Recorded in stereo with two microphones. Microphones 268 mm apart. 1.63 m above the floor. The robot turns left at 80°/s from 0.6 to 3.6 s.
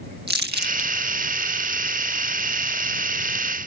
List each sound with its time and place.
0.3 s crumpling: 40° right (ahead or behind); by 0.9 s 60° right (ahead or behind)